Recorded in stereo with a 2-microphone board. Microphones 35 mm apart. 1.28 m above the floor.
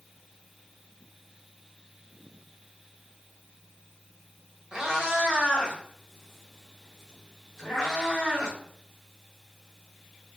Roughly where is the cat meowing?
Right.